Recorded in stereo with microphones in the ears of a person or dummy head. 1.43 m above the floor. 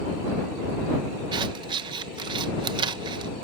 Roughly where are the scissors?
Right.